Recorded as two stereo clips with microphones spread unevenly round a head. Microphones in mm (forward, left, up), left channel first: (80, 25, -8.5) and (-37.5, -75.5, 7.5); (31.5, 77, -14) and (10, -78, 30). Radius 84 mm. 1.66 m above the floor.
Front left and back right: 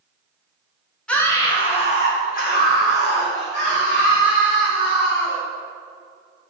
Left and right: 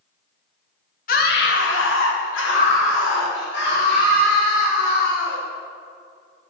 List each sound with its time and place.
1.1 s a scream: 125° left, 1.2 m; by 5.4 s 60° left, 4.5 m